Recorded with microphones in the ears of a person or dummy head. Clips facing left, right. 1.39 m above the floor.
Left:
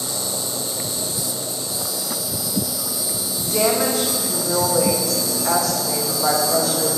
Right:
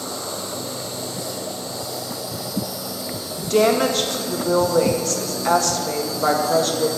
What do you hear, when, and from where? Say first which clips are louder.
0.0 s an insect: even; 50° left (ahead or behind), 0.8 m
3.4 s a woman speaking: right 4 dB; 40° right (ahead or behind), 1.3 m